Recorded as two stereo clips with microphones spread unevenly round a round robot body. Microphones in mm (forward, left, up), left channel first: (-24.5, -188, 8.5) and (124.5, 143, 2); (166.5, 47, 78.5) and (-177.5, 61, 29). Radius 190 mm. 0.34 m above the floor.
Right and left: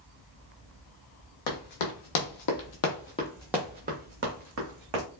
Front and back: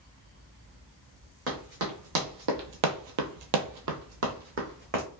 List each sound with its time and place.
1.5 s running footsteps: 120° right, 1.0 m; by 5.0 s 110° left, 1.1 m